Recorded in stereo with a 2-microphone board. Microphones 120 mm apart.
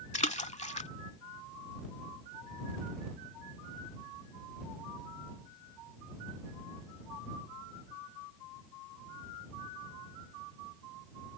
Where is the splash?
65° left (ahead or behind).